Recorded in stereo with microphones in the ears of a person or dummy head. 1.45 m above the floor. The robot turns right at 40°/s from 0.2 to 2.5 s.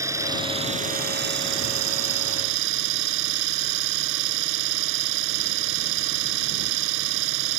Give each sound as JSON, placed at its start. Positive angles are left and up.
{"t": 0.0, "sound": "an engine running", "azimuth_deg": -165}